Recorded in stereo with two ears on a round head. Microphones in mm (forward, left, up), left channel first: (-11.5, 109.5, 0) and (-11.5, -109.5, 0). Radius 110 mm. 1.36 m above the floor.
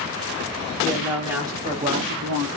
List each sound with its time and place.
0.8 s a woman speaking: centre (ahead or behind), 1.8 m; by 2.5 s 60° right (ahead or behind), 0.9 m